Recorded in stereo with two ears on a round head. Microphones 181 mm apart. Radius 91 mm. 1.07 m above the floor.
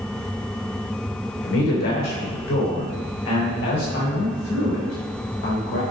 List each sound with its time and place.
1.4 s a man speaking: 85° left, 3.5 m; by 5.8 s 80° left, 6 m